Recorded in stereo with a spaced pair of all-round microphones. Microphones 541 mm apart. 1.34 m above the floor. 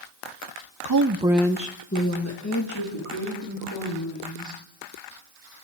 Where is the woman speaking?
45° right (ahead or behind), 0.9 m; by 4.6 s 40° left (ahead or behind), 6 m.